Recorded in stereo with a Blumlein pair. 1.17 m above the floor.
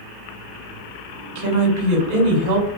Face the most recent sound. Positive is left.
turn(degrees=-50)